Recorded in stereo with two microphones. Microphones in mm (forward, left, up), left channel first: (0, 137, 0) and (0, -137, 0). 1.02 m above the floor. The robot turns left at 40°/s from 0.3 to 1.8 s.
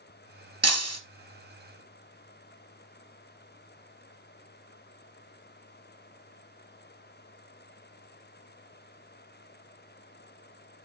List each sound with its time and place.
0.6 s breaking glass: 65° right (ahead or behind), 2 m